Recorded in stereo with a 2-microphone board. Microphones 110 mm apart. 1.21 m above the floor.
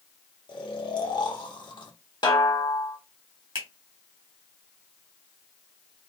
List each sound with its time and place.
0.5 s snoring: 40° left (ahead or behind), 0.8 m
2.2 s a snare drum: 40° left (ahead or behind), 1.2 m
3.5 s a finger snap: 50° right (ahead or behind), 1.5 m